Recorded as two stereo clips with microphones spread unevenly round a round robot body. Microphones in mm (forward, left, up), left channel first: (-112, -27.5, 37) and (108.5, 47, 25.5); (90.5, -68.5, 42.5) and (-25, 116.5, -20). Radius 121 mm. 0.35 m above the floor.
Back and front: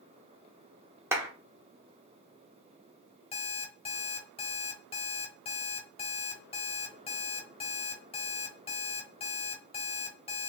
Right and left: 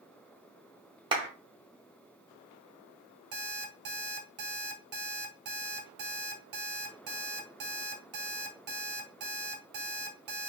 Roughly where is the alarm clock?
Behind left.